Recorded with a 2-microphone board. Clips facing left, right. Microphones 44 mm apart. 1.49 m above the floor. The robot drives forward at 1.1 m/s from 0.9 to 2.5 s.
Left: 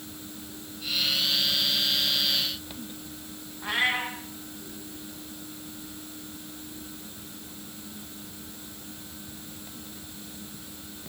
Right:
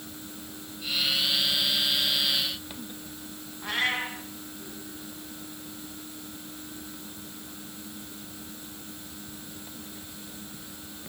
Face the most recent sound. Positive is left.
turn(degrees=10)  # may be behind; listen again after turning